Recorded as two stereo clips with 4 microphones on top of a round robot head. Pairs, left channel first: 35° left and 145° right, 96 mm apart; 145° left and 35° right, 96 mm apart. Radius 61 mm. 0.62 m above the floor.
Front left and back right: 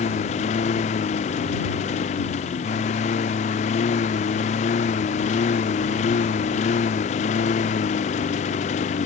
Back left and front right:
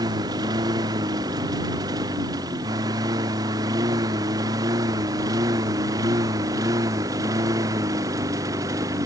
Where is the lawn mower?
20° left; by 9.1 s 25° left.